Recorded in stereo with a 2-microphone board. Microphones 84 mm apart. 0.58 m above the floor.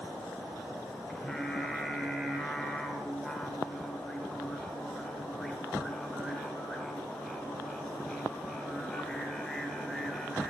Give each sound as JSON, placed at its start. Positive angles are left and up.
{"t": 1.1, "sound": "singing", "side_deg": 5, "distance_m": 0.7}